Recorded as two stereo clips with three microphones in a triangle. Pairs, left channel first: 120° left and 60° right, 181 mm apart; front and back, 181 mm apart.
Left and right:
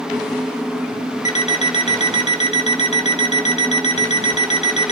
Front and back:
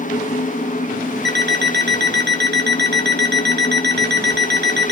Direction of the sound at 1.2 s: 170° left.